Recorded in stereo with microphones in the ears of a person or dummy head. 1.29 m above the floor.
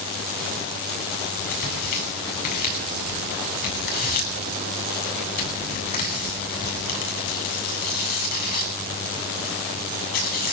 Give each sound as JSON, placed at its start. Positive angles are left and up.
{"t": 1.5, "sound": "tearing paper", "side_deg": 45, "distance_m": 8.5}